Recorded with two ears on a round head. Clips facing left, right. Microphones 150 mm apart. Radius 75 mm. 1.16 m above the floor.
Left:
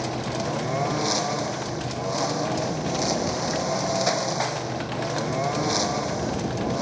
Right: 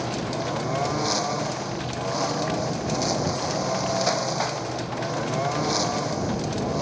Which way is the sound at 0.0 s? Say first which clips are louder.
Even; 5° left (ahead or behind).